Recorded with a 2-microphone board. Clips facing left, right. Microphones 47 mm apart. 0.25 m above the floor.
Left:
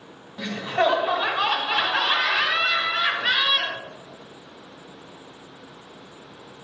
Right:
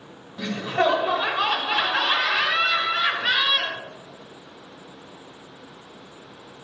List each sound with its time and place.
0.4 s laughter: 5° left (ahead or behind), 1.5 m